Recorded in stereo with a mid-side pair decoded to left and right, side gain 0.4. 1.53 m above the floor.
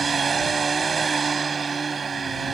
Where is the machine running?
35° right.